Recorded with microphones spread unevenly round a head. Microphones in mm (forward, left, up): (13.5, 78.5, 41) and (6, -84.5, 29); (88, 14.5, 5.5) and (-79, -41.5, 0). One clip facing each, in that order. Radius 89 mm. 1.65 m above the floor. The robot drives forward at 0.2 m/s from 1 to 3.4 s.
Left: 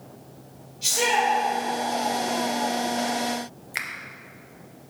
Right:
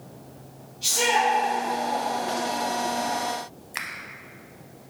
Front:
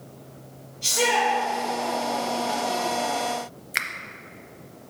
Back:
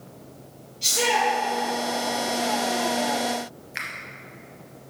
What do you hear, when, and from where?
0.8 s a shout: 155° left, 2.0 m
3.7 s a finger snap: 10° left, 0.5 m